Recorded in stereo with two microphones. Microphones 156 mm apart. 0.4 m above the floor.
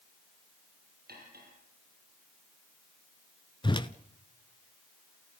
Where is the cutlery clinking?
85° right, 6.5 m.